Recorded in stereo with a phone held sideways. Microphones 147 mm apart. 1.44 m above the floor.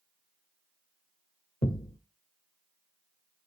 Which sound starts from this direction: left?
A thud, at 1.6 s.